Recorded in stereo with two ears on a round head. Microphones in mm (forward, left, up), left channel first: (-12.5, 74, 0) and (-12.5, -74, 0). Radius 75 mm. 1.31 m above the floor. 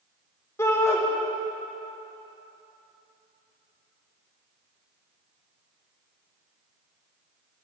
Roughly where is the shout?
Centre.